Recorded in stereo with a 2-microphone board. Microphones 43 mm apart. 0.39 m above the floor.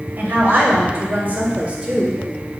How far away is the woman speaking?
About 1.9 m.